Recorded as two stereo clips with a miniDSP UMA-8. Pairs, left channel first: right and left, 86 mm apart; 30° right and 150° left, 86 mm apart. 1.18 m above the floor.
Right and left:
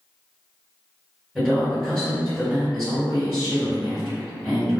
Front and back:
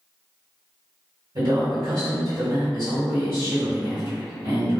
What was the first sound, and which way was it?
A man speaking, 165° left.